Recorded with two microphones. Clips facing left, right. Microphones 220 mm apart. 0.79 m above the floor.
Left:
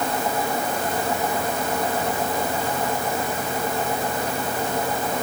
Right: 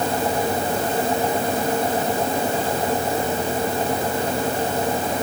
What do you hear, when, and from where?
Only background noise.